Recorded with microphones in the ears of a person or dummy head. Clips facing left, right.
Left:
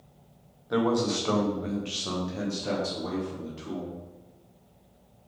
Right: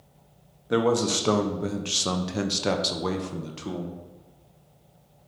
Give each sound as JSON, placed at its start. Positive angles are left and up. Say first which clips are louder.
{"t": 0.7, "sound": "a man speaking", "louder": "right 2 dB", "side_deg": -40, "distance_m": 1.3}